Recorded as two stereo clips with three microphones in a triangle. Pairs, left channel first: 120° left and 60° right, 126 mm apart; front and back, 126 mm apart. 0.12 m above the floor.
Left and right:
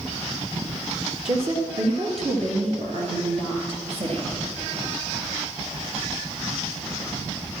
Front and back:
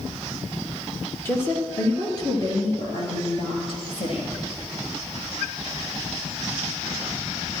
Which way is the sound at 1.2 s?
65° right.